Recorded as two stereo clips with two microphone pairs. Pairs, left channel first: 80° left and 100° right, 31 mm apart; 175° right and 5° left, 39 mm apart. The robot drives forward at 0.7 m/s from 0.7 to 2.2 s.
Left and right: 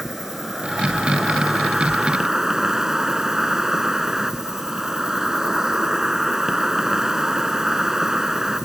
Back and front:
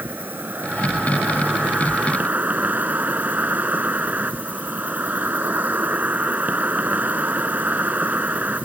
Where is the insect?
20° right; by 8.7 s 25° right.